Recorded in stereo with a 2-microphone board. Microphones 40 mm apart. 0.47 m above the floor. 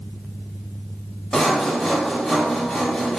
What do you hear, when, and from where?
1.3 s sawing: 5° left (ahead or behind), 0.6 m